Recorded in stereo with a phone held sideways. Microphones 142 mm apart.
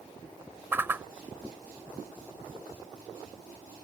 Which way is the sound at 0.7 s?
15° right (ahead or behind).